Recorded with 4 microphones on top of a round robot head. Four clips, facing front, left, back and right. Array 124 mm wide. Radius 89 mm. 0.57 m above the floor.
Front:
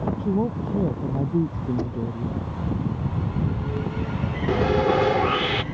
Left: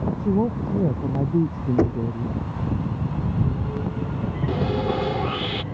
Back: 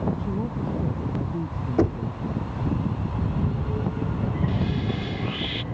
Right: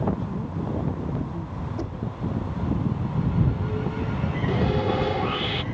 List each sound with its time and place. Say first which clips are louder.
0.2 s a woman speaking: left 8 dB, front 4 dB; 60° left
1.8 s knocking: left 12 dB, back 5 dB; 125° left
4.5 s sawing: even, front 8 dB; 10° left